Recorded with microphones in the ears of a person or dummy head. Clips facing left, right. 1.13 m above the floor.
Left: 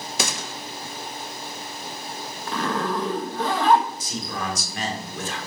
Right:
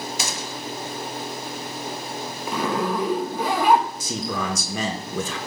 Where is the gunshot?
55° left (ahead or behind), 1.0 m.